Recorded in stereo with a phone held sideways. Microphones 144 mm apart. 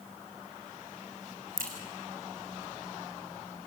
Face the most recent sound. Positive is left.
turn(degrees=-80)